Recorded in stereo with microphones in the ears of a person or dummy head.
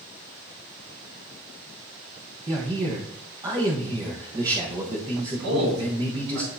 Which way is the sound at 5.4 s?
85° right.